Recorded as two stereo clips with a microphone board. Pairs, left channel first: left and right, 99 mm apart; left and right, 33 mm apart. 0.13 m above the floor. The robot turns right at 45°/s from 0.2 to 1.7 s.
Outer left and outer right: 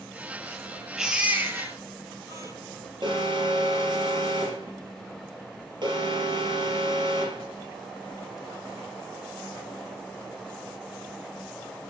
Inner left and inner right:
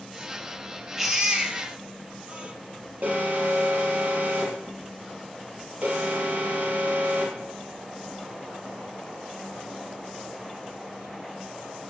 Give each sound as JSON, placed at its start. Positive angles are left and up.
{"t": 1.0, "sound": "a baby crying", "azimuth_deg": -175, "distance_m": 1.9}
{"t": 3.0, "sound": "an alarm", "side_deg": -50, "distance_m": 4.0}